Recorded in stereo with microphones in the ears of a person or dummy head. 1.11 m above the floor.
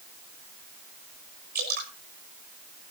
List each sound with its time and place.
1.6 s dripping: 55° right (ahead or behind), 6 m